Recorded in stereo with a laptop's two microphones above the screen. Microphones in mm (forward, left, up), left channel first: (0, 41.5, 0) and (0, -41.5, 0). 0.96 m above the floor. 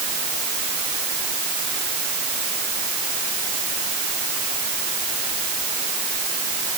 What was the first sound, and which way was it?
Only background noise.